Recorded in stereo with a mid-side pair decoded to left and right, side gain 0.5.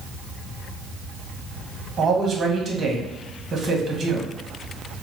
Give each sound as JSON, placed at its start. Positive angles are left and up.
{"t": 2.0, "sound": "a man speaking", "azimuth_deg": -40, "distance_m": 1.3}